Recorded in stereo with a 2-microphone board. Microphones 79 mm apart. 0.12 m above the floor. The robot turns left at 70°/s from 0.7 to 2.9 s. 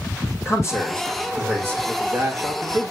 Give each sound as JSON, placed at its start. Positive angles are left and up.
{"t": 0.5, "sound": "a man speaking", "azimuth_deg": 40, "distance_m": 6.0}
{"t": 1.9, "sound": "a man speaking", "azimuth_deg": -20, "distance_m": 2.5}